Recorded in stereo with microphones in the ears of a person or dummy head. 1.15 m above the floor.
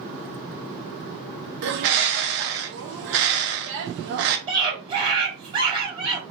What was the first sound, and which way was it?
A bird, 65° right (ahead or behind).